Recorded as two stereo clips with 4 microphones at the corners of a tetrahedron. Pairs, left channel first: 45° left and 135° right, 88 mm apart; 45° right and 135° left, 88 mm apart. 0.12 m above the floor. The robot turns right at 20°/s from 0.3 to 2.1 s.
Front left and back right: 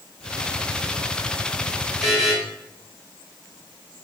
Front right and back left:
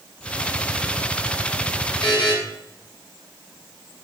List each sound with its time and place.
2.0 s a buzzer: 50° right, 0.9 m; by 2.4 s 45° right, 0.9 m